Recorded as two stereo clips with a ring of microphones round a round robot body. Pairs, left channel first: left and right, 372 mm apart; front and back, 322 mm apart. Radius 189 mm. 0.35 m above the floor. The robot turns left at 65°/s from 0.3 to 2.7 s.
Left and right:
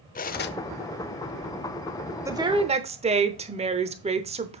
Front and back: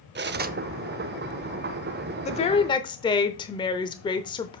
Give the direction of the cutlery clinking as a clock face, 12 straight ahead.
7 o'clock.